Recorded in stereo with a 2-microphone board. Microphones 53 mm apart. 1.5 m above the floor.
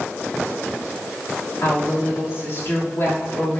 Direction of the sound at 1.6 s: 60° left (ahead or behind).